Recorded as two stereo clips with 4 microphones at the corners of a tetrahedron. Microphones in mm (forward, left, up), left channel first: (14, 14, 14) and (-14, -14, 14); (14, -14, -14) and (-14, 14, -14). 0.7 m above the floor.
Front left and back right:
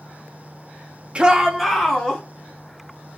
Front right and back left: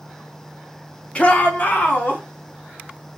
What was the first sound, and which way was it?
A shout, 90° right.